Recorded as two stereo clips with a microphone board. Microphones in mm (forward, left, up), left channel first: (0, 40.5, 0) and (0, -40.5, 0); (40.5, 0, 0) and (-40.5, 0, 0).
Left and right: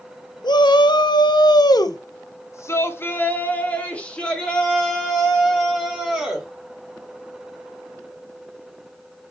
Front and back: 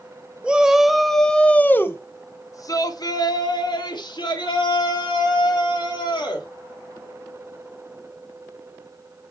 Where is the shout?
105° left, 1.1 m; by 6.5 s straight ahead, 2.5 m.